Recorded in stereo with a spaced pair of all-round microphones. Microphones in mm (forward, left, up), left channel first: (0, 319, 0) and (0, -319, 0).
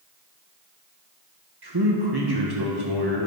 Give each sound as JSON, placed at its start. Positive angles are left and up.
{"t": 1.6, "sound": "a man speaking", "side_deg": -35, "distance_m": 1.6}